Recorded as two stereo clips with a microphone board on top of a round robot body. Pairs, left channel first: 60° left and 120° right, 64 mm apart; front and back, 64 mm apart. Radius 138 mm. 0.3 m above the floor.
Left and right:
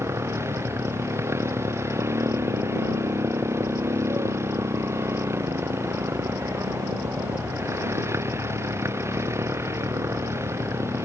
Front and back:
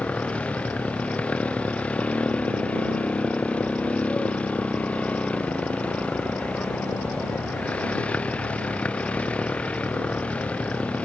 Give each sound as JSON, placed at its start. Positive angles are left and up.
{"t": 0.0, "sound": "a motorcycle", "azimuth_deg": -70}